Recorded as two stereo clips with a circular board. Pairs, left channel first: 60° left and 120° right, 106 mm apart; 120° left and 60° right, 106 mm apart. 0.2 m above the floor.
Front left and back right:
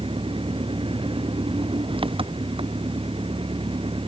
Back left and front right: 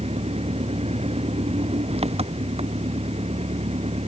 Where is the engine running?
85° right.